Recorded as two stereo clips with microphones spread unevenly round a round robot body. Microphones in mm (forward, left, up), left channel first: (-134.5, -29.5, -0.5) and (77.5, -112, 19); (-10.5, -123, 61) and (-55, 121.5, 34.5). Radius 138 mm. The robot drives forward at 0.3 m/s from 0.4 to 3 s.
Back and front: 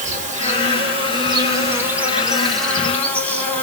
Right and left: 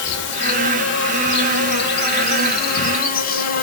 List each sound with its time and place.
0.0 s an insect: 65° right, 1.1 m; by 3.6 s 125° right, 1.2 m